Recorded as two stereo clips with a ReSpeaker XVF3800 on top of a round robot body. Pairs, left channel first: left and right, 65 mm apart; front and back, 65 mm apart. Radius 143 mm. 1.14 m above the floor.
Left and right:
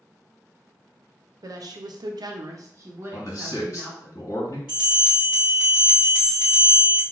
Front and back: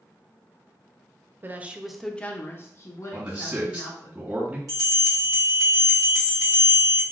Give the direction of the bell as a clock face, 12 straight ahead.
6 o'clock.